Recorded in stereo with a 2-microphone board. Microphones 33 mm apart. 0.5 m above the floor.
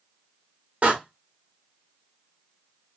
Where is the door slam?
45° right (ahead or behind), 1.1 m.